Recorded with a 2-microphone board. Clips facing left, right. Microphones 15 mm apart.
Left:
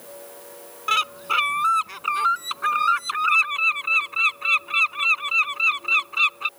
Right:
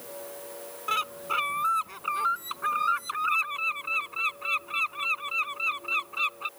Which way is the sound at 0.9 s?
40° left (ahead or behind).